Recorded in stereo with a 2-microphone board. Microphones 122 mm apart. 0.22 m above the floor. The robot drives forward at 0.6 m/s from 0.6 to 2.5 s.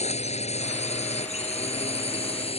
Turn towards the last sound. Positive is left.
turn(degrees=55)  # may be behind; listen again after turning